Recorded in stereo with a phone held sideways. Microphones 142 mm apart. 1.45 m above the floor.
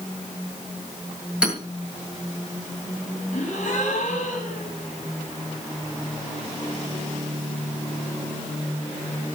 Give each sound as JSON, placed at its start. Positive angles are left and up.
{"t": 1.4, "sound": "hammering", "side_deg": -5, "distance_m": 8.0}
{"t": 3.3, "sound": "a gasp", "side_deg": 60, "distance_m": 8.0}